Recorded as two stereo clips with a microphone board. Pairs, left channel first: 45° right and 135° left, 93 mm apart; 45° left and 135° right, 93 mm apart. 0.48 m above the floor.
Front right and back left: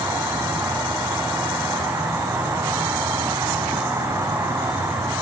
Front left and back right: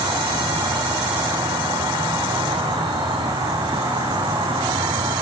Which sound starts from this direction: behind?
An insect, at 0.0 s.